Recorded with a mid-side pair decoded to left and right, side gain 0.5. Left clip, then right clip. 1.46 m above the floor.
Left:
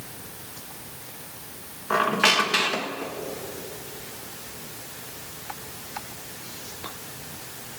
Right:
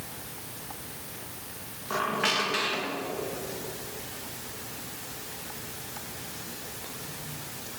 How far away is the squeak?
About 1.3 m.